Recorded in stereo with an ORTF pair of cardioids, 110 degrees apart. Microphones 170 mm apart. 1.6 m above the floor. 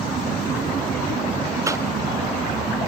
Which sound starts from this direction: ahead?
A cough, at 1.7 s.